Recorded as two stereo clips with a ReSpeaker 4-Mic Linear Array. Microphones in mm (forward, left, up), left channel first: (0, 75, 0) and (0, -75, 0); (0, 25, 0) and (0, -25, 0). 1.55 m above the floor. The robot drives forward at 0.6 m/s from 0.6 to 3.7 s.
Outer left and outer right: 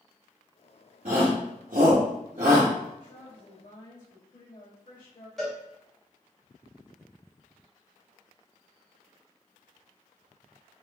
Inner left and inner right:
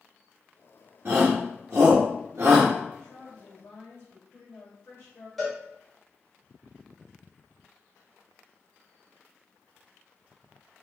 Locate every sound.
1.1 s a shout: 45° right (ahead or behind), 1.0 m; by 2.7 s 50° right (ahead or behind), 1.0 m
3.0 s a woman speaking: 60° left (ahead or behind), 1.2 m; by 5.3 s 45° left (ahead or behind), 1.5 m
5.4 s a cowbell: centre (ahead or behind), 1.9 m